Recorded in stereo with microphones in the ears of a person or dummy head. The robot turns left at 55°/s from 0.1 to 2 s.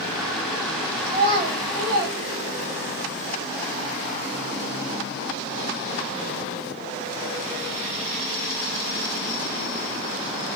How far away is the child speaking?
About 1.1 m.